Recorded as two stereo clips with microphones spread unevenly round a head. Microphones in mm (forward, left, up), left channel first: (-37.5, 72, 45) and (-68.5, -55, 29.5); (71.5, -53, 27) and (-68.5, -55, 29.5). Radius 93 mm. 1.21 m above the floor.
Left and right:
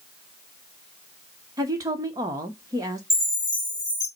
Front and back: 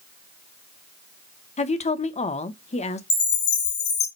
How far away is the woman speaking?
About 0.9 m.